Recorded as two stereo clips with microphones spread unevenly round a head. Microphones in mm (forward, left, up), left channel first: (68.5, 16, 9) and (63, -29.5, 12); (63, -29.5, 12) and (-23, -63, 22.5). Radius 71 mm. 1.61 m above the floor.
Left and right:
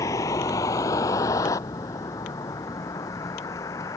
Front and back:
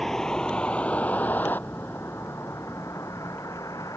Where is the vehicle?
110° left; by 4.0 s 95° left.